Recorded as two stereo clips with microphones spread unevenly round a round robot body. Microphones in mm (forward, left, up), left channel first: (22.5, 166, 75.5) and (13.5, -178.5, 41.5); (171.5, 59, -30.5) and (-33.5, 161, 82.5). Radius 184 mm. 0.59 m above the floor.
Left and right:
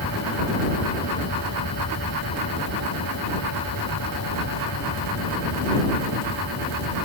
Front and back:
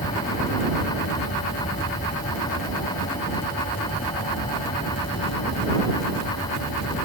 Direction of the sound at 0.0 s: 35° left.